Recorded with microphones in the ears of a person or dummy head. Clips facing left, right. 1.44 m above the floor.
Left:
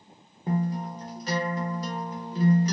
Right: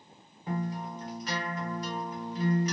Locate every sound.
0.5 s a guitar: 35° left (ahead or behind), 0.7 m